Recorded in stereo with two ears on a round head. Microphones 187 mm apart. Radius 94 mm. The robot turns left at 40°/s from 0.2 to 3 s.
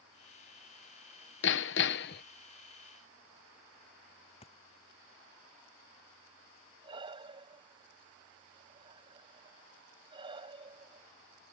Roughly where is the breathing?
Right.